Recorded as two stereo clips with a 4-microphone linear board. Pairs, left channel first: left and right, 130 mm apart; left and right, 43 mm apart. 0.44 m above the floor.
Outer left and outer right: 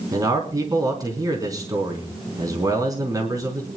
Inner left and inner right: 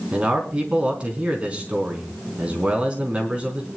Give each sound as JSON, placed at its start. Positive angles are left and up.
{"t": 0.1, "sound": "a man speaking", "side_deg": -30, "distance_m": 4.0}